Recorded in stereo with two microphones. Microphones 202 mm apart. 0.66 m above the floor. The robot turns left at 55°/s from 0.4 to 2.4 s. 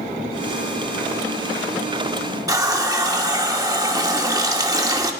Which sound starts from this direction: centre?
A running tap, at 2.5 s.